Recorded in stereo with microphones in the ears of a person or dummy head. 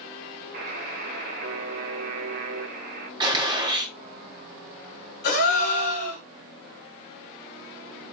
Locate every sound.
0.5 s a buzzer: 50° right (ahead or behind), 0.9 m
3.2 s a gunshot: 25° right (ahead or behind), 1.4 m
5.2 s a gasp: 60° left (ahead or behind), 3.5 m